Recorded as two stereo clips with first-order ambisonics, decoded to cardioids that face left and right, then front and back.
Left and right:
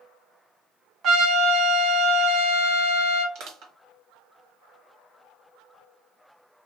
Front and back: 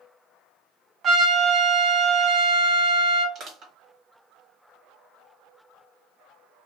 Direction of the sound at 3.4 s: 120° right.